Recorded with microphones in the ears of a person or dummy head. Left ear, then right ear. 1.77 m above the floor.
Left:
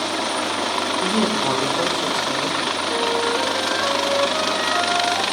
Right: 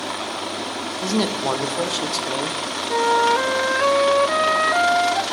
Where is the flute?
60° right (ahead or behind), 0.6 m.